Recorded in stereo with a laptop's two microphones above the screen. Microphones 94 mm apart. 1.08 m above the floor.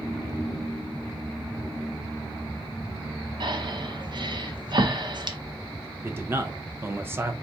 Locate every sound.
3.4 s breathing: 50° right (ahead or behind), 0.7 m
6.0 s a man speaking: 25° right (ahead or behind), 0.6 m